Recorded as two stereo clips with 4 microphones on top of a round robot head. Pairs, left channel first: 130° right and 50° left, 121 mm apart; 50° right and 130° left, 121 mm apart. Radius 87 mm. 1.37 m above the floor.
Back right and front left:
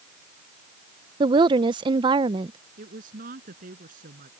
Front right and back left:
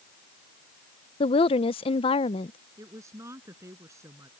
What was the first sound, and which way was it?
A woman speaking, 5° right.